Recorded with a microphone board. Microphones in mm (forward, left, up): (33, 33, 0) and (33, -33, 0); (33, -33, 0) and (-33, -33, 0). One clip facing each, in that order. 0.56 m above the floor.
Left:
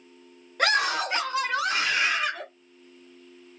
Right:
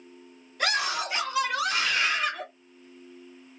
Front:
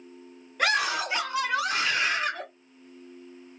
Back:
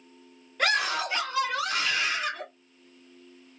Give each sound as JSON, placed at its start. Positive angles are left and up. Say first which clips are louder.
{"t": 0.6, "sound": "a scream", "louder": "left 4 dB, front 1 dB", "azimuth_deg": 85, "distance_m": 1.8}